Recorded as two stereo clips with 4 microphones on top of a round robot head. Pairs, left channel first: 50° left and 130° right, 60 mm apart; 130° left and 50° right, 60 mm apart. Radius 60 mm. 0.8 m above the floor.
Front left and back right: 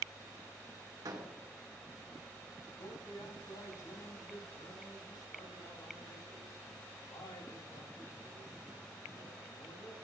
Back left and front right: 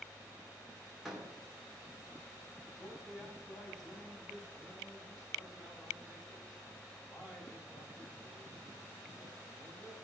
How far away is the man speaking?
About 5.5 m.